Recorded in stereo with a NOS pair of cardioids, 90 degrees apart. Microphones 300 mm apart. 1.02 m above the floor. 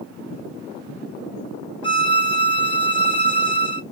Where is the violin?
20° left, 0.6 m.